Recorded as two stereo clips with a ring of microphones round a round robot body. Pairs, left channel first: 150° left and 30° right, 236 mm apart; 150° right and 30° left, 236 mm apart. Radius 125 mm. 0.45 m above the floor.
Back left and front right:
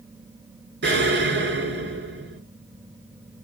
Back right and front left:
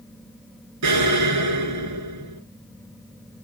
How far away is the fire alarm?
I don't hear a fire alarm.